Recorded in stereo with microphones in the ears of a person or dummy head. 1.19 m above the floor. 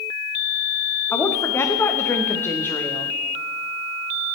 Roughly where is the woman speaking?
Centre.